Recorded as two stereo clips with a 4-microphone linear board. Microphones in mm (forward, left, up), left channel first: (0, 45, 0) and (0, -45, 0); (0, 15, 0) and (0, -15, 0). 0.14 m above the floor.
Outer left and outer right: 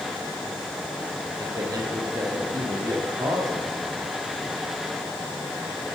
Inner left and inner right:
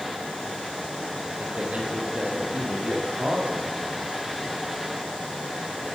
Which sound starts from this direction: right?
A man speaking, at 1.4 s.